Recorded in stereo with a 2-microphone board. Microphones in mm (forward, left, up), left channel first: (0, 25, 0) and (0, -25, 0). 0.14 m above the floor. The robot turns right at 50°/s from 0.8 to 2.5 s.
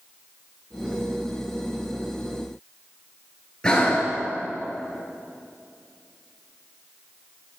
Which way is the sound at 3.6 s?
15° left (ahead or behind).